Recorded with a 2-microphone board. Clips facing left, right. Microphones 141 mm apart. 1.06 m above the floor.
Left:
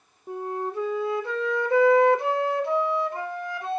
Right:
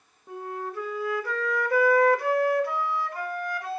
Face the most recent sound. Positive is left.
turn(degrees=25)  # may be behind; listen again after turning